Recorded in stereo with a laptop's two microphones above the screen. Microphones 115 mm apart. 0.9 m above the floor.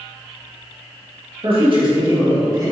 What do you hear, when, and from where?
1.4 s a man speaking: 50° right (ahead or behind), 1.3 m; by 2.7 s 30° right (ahead or behind), 1.6 m